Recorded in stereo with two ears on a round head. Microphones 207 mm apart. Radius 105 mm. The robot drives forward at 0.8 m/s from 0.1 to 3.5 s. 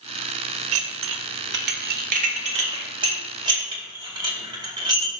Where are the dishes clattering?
65° right (ahead or behind), 0.9 m; by 5.1 s 20° right (ahead or behind), 2.5 m.